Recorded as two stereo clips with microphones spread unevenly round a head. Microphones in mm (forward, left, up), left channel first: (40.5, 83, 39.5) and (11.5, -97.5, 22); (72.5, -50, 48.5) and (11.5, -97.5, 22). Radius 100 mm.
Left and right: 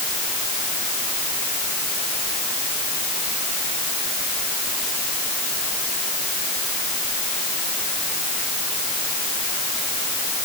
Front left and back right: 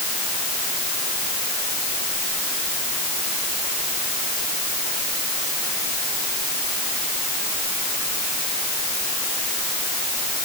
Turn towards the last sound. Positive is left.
No sound to turn to.